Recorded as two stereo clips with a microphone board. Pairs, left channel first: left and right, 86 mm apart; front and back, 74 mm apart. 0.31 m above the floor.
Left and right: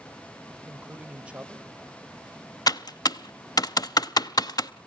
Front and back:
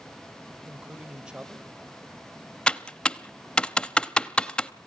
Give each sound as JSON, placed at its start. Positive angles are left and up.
{"t": 0.7, "sound": "a man speaking", "azimuth_deg": -130, "distance_m": 1.3}
{"t": 2.7, "sound": "typing on a keyboard", "azimuth_deg": 75, "distance_m": 0.6}